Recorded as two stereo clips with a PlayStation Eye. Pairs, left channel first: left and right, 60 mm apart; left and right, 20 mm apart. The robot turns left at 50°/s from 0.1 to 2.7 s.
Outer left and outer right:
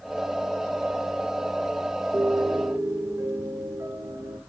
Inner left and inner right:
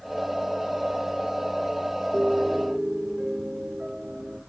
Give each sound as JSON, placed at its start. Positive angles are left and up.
{"t": 2.1, "sound": "a piano", "side_deg": -75, "distance_m": 1.0}